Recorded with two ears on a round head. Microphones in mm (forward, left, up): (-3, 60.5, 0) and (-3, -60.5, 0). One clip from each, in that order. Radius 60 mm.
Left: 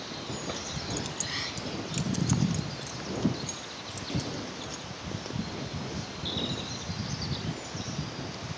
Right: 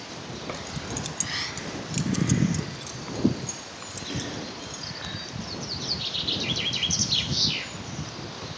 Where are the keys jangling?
20° right (ahead or behind); by 4.8 s 10° right (ahead or behind).